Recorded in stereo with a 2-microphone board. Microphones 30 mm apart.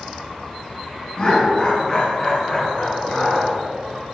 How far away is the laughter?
About 2 m.